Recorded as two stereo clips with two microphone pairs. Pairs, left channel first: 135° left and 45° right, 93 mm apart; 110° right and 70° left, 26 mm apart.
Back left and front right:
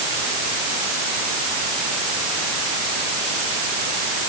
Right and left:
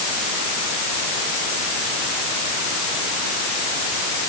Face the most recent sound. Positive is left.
No sound to turn to.